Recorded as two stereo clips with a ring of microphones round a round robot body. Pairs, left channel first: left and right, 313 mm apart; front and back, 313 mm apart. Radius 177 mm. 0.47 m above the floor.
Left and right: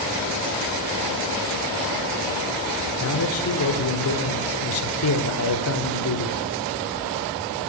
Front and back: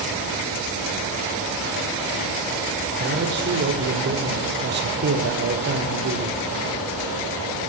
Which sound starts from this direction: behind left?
A man speaking, at 3.0 s.